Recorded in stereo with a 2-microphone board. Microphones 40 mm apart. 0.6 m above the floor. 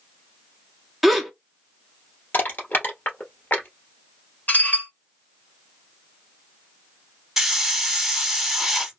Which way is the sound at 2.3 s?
60° left (ahead or behind).